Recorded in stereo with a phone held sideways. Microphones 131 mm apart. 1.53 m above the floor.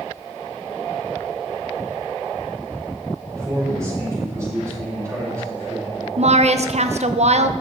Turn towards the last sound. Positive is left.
turn(degrees=-55)  # may be behind; listen again after turning